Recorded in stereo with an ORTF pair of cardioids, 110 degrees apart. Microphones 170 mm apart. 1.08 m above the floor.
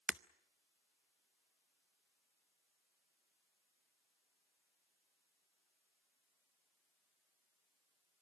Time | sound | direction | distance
0.1 | breaking glass | 10° right | 0.6 m